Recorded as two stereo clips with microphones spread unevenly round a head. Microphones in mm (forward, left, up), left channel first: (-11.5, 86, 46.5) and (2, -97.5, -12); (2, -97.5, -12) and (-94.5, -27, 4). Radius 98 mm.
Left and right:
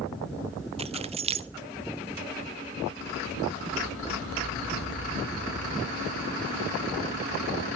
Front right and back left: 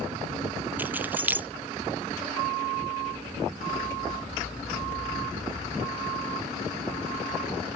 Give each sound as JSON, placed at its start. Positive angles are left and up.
{"t": 0.8, "sound": "keys jangling", "azimuth_deg": -135, "distance_m": 0.6}